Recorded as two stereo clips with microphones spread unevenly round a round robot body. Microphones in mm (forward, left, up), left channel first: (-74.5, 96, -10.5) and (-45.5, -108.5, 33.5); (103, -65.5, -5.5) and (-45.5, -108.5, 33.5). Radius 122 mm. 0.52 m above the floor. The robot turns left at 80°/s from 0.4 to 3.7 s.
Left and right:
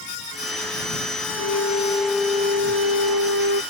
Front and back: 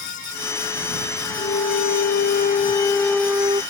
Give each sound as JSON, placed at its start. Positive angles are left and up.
{"t": 1.4, "sound": "a flute", "azimuth_deg": 70}